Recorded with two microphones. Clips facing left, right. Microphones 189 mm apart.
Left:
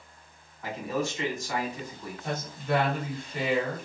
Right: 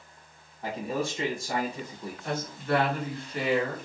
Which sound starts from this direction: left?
A woman speaking, at 2.2 s.